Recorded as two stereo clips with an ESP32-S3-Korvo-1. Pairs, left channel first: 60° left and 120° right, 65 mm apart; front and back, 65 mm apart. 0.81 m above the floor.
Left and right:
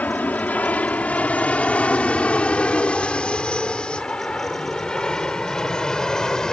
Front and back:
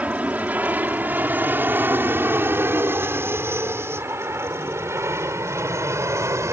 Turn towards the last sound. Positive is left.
turn(degrees=140)